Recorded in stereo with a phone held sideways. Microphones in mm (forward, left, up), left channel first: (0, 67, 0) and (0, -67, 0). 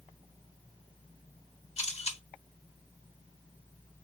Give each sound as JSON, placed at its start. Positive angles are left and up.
{"t": 1.8, "sound": "a camera shutter", "side_deg": 55, "distance_m": 1.2}